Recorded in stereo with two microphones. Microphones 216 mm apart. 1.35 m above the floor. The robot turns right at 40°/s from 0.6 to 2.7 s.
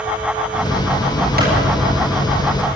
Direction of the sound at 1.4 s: 45° right (ahead or behind).